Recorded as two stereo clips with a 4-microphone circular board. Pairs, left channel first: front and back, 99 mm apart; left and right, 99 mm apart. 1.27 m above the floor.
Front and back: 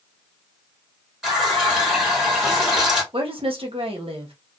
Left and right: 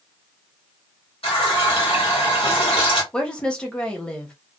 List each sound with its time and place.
1.2 s a running tap: 95° left, 1.8 m
3.1 s a woman speaking: 170° left, 1.1 m